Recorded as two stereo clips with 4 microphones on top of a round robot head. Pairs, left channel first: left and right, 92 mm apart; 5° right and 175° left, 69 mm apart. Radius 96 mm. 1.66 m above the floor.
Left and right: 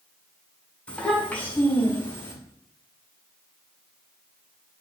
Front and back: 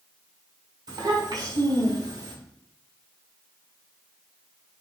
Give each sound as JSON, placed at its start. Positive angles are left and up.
{"t": 0.9, "sound": "a child speaking", "azimuth_deg": 165, "distance_m": 6.0}